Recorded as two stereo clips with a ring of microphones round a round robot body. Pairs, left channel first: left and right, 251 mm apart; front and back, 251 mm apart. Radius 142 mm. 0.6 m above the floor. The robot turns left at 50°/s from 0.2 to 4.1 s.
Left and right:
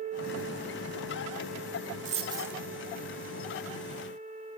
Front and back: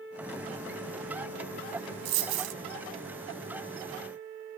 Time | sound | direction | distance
2.0 | a dropped coin | 150° right | 0.7 m